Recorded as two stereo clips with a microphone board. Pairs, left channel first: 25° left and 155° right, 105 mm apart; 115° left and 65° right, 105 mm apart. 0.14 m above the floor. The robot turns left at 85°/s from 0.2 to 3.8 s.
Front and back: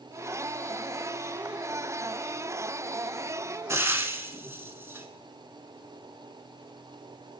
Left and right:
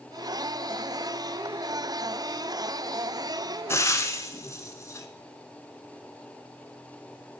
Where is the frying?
160° left, 0.6 m; by 5.1 s 150° left, 0.6 m.